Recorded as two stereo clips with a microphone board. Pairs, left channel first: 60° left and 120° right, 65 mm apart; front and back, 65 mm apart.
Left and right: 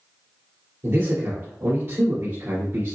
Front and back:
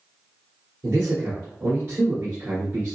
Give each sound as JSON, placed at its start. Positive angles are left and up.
{"t": 0.8, "sound": "a man speaking", "azimuth_deg": -135, "distance_m": 2.5}